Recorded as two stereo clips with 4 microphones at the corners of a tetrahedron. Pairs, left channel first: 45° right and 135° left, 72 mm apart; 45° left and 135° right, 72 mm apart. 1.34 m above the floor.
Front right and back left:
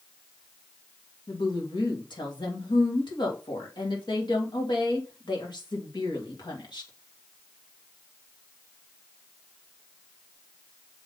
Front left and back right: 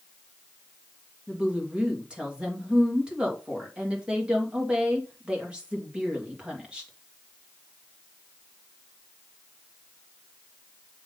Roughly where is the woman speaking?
Ahead right.